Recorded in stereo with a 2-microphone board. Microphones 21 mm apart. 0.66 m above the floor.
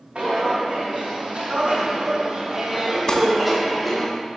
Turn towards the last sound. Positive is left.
turn(degrees=40)  # may be behind; listen again after turning